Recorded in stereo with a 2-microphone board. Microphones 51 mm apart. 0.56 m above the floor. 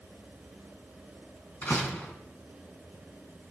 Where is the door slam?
40° left (ahead or behind), 4 m.